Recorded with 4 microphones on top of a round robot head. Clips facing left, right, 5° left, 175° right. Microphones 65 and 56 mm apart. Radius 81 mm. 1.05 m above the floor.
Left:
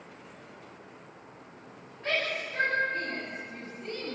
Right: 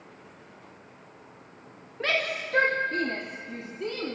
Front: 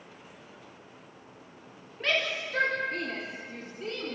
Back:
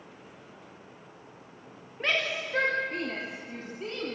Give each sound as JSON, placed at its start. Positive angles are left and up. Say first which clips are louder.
{"t": 2.0, "sound": "a shout", "louder": "right 3 dB, even", "azimuth_deg": -105, "distance_m": 1.9}